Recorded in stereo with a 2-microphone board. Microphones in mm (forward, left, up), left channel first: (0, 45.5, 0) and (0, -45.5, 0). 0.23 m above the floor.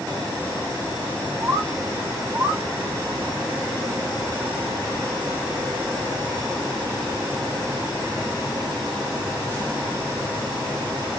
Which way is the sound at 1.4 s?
35° right (ahead or behind).